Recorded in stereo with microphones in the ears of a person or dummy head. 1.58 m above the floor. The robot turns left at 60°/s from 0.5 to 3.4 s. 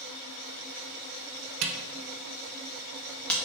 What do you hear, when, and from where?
1.6 s a camera shutter: 80° right, 0.6 m; by 3.3 s 5° left (ahead or behind), 0.6 m